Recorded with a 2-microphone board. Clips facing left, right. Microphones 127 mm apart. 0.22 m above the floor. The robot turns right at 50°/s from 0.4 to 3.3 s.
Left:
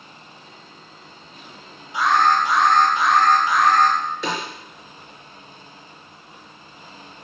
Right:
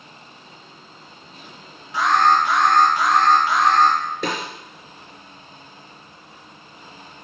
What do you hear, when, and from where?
1.9 s an alarm: 95° right, 4 m; by 4.0 s 30° right, 4 m
4.2 s a snare drum: 50° right (ahead or behind), 4 m